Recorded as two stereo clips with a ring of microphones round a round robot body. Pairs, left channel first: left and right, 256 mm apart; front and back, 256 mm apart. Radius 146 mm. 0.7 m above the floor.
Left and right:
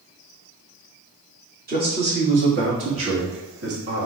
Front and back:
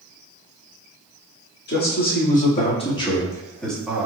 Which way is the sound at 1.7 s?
40° right.